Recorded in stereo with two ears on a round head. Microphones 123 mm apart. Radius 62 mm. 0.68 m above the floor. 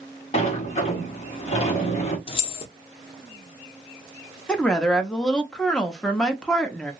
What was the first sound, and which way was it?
A sliding door, 50° left (ahead or behind).